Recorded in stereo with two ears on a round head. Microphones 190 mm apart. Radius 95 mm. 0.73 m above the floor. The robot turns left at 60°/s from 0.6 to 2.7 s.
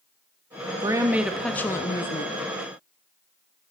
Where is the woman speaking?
145° right, 0.6 m; by 2.4 s 120° left, 0.6 m.